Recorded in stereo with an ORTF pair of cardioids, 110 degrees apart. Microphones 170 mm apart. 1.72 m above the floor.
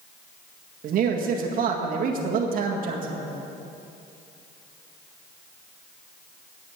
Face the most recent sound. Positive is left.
turn(degrees=-60)